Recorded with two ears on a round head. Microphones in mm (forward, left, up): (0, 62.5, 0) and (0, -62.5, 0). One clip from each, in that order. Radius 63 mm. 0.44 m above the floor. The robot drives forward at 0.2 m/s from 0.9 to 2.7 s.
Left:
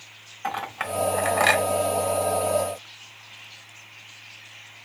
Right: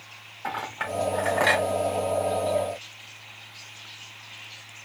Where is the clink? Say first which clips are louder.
Left 2 dB; 50° left (ahead or behind), 1.3 m; by 1.6 s 55° left (ahead or behind), 1.3 m.